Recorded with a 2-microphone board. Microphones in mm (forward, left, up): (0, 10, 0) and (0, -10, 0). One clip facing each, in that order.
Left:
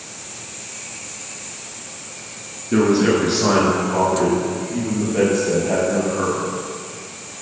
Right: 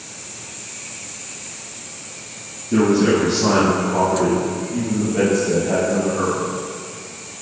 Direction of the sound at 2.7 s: 45° left (ahead or behind).